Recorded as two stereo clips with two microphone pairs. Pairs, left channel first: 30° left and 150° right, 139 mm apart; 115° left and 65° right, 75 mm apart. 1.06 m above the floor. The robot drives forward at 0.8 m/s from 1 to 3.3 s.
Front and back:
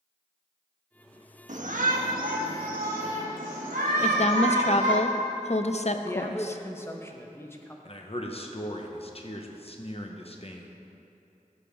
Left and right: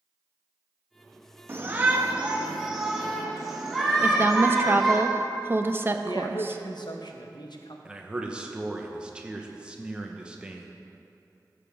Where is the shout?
125° right, 1.1 m; by 5.0 s 155° right, 2.5 m.